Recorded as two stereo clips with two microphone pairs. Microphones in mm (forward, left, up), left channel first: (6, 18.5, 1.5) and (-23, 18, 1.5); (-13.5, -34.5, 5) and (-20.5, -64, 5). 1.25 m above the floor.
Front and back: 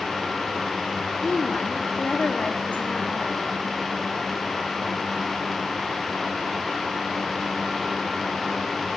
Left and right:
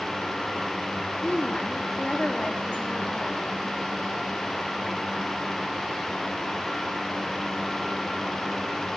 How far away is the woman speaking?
About 3 m.